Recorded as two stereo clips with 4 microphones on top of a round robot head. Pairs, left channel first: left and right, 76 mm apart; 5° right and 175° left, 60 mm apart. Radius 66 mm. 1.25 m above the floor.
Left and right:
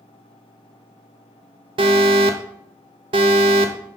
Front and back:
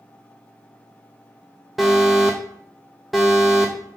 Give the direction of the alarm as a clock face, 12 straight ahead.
3 o'clock.